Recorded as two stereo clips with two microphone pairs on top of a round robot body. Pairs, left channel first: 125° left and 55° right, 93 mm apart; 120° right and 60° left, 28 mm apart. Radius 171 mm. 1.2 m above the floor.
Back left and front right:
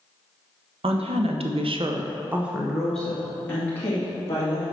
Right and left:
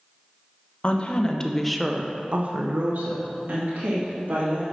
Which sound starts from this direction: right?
A woman speaking, at 0.8 s.